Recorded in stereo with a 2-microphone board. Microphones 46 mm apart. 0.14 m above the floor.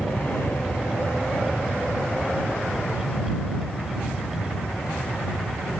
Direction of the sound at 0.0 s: 40° left (ahead or behind).